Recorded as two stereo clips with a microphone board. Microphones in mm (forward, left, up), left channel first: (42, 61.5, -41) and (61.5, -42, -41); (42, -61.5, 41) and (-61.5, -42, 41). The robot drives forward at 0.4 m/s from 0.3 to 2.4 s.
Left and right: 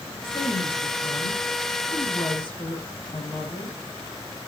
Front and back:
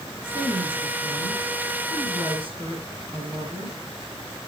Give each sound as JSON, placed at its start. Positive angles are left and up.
{"t": 0.2, "sound": "a woman speaking", "azimuth_deg": 130, "distance_m": 5.5}